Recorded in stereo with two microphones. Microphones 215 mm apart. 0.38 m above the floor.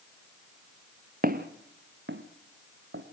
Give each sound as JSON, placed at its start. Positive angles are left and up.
{"t": 1.2, "sound": "footsteps", "side_deg": -45, "distance_m": 1.4}